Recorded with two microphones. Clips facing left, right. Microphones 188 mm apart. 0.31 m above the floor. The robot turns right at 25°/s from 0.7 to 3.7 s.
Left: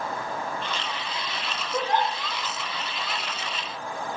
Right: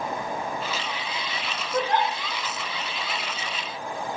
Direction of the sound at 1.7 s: Centre (ahead or behind).